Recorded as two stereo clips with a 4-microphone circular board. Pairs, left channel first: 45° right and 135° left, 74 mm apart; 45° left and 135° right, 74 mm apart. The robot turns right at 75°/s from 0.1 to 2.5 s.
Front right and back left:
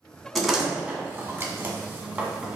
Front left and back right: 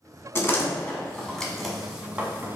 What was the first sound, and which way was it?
A door slam, 45° left.